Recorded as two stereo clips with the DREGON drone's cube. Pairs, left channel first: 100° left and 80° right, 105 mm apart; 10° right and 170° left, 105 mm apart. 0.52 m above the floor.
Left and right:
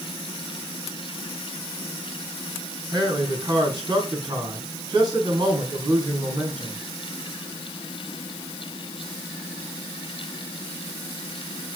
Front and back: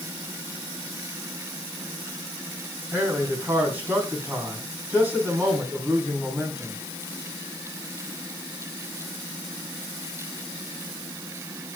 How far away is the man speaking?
About 4.5 m.